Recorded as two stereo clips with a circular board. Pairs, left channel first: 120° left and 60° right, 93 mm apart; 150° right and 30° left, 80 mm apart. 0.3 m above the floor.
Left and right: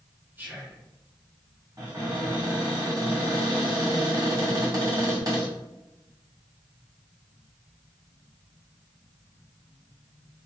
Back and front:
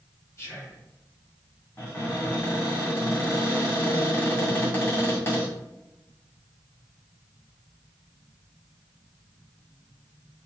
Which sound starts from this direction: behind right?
Whispering, at 0.4 s.